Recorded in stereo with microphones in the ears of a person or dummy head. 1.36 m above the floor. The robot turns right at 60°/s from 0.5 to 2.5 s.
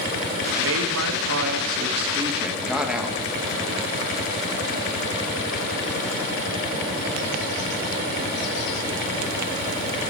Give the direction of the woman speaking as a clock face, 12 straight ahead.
4 o'clock.